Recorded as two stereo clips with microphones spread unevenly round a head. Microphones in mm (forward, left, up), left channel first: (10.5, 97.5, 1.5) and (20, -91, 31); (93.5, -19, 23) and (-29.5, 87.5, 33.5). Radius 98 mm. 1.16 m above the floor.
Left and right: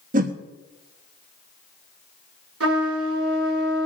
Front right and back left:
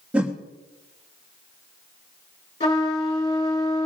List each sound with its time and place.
0.1 s a whoosh: 135° right, 1.1 m
2.6 s a trumpet: 110° right, 4 m